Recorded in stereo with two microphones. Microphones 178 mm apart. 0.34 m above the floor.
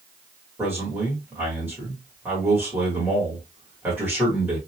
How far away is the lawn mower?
I don't hear a lawn mower.